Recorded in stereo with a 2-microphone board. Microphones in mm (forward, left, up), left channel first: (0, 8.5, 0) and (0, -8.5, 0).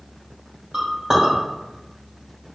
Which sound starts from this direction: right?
A clink, at 0.7 s.